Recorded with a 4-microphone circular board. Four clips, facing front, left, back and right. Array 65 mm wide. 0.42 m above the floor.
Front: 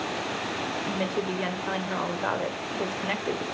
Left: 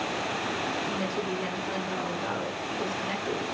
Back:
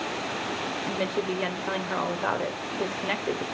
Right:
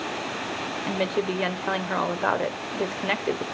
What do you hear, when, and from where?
0.9 s a woman speaking: 95° right, 1.4 m